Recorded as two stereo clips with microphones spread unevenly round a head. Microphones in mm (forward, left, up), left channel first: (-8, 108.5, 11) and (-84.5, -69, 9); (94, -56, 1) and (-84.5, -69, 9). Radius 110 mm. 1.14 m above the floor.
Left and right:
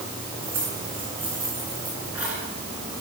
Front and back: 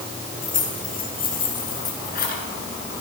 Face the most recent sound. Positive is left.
turn(degrees=-30)